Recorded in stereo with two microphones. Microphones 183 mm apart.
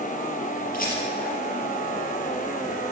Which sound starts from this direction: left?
A rattle, at 0.7 s.